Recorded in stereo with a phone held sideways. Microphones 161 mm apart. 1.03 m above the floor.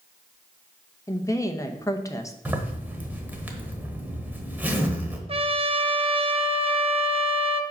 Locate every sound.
1.1 s a woman speaking: 20° left (ahead or behind), 0.8 m
2.5 s a zipper: 10° right (ahead or behind), 1.2 m
5.3 s a trumpet: 35° right (ahead or behind), 0.5 m